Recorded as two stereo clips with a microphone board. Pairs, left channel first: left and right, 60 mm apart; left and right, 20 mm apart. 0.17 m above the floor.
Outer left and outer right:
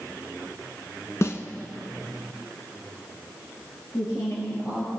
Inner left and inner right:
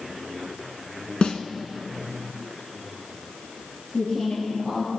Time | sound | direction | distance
1.2 | a snare drum | 50° left (ahead or behind) | 1.1 m
3.9 | a woman speaking | 50° left (ahead or behind) | 4 m